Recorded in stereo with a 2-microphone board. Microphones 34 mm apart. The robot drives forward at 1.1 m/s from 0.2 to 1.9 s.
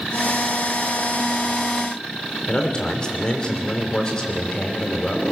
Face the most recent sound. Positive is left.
turn(degrees=25)  # may be behind; listen again after turning